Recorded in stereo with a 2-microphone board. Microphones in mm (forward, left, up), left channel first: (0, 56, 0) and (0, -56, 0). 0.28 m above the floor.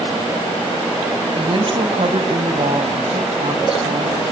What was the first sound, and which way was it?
A woman speaking, 40° right (ahead or behind).